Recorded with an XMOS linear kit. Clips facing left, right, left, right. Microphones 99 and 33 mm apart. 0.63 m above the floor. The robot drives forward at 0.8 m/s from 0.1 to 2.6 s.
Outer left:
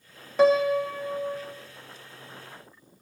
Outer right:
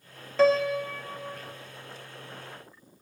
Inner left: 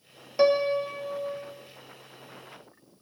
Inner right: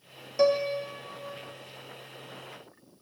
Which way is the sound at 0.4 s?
15° left (ahead or behind).